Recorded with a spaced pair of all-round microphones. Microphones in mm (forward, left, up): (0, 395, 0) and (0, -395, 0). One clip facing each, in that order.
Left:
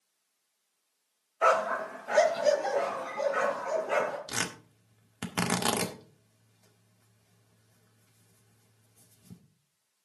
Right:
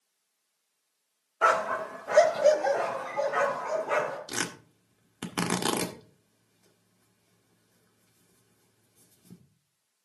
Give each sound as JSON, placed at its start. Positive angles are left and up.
{"t": 1.4, "sound": "a dog barking", "side_deg": -45, "distance_m": 1.1}
{"t": 4.3, "sound": "tearing paper", "side_deg": 20, "distance_m": 1.5}